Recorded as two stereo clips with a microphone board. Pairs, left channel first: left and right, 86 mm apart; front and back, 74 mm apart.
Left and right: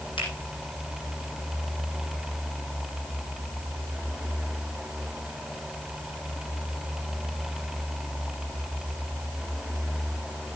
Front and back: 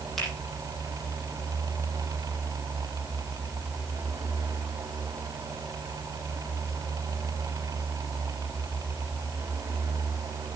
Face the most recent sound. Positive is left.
turn(degrees=90)